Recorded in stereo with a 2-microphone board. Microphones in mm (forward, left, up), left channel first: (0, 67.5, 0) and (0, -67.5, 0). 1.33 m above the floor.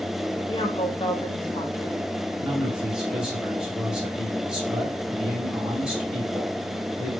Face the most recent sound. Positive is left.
turn(degrees=-5)  # may be behind; listen again after turning